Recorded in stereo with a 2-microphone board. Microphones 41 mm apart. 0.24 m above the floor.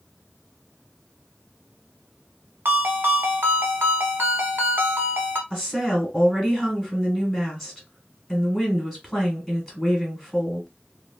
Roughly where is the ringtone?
Right.